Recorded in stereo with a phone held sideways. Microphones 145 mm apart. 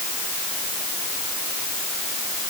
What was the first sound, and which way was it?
Only background noise.